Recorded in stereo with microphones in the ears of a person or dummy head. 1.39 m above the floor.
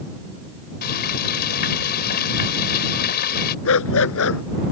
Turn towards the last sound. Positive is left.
turn(degrees=75)  # may be behind; listen again after turning